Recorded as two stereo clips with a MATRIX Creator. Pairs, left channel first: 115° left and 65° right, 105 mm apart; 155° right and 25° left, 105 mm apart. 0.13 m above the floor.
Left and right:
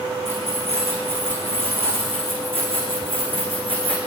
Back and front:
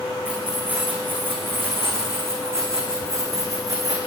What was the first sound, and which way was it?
Keys jangling, 55° right.